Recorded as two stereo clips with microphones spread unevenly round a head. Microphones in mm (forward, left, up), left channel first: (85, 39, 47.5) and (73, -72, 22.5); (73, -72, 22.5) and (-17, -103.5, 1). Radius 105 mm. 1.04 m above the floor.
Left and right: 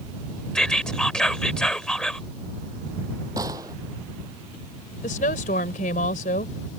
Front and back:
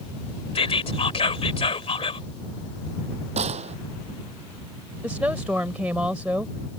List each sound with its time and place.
0.6 s whispering: straight ahead
3.4 s a gunshot: 170° right
5.0 s a woman speaking: 115° left